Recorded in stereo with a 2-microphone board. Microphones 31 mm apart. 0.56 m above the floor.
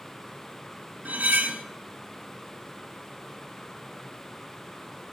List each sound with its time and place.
1.1 s cutlery clinking: 65° right (ahead or behind), 0.5 m